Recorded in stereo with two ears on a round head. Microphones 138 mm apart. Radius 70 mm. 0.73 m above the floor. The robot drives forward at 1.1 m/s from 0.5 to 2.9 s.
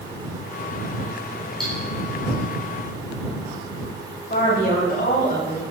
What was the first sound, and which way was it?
Cutlery clinking, 5° left (ahead or behind).